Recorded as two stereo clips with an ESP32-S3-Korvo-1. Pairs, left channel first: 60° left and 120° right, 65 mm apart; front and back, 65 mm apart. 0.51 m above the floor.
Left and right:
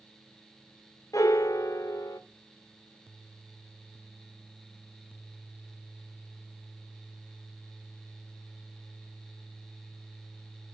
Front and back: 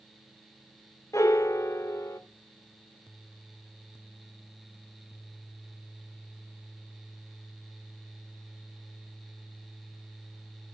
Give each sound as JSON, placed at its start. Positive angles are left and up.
{"t": 1.1, "sound": "a piano", "azimuth_deg": 35, "distance_m": 0.6}